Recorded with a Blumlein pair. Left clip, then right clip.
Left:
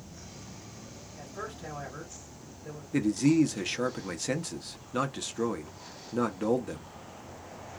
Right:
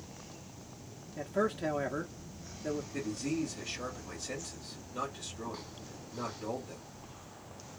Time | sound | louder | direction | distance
1.2 | a man speaking | right 9 dB | 35° right | 0.7 m
2.9 | a man speaking | left 10 dB | 40° left | 0.7 m